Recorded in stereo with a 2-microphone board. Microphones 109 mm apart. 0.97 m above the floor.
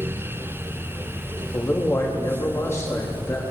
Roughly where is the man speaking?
Left.